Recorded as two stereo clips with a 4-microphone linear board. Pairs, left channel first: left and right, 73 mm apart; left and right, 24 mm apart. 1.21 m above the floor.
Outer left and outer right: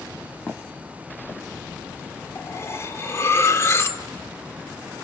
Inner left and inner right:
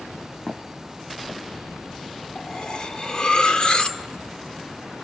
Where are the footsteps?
25° left (ahead or behind), 3 m.